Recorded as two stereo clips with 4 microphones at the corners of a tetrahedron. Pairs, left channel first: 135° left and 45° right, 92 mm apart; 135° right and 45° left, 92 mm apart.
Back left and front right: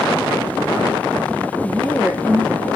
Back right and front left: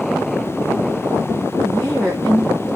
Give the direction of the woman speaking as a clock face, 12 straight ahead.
11 o'clock.